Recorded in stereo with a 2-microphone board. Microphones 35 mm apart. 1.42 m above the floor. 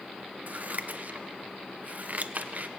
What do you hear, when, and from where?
0.5 s scissors: 50° right (ahead or behind), 0.9 m